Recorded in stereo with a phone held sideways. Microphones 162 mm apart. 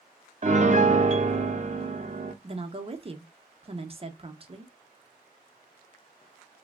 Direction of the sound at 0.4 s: 50° right (ahead or behind).